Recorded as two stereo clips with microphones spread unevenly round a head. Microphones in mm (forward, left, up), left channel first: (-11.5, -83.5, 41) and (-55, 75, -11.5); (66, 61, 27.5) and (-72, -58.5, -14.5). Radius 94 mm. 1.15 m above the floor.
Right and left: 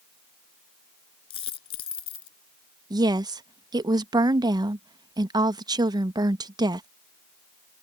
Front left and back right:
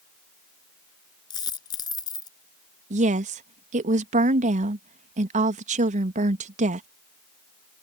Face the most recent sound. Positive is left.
turn(degrees=170)